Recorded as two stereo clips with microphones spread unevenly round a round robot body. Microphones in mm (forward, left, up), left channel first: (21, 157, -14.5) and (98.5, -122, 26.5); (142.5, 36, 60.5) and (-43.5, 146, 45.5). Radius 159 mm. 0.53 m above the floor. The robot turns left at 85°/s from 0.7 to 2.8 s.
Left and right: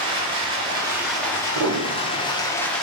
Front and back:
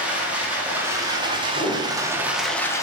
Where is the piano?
100° right, 0.5 m; by 2.4 s 170° right, 0.5 m.